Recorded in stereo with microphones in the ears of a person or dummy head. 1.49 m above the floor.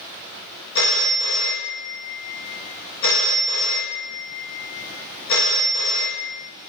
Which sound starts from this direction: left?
A phone ringing, at 0.8 s.